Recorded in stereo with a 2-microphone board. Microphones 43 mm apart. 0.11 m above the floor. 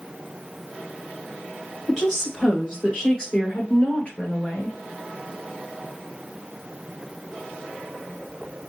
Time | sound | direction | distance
1.9 | a woman speaking | 10° left (ahead or behind) | 2.5 m